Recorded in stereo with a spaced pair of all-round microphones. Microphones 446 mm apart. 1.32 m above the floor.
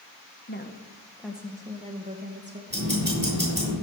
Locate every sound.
0.5 s a woman speaking: 25° left (ahead or behind), 1.3 m; by 2.6 s 25° right (ahead or behind), 2 m
2.7 s ticking: 25° right (ahead or behind), 6.5 m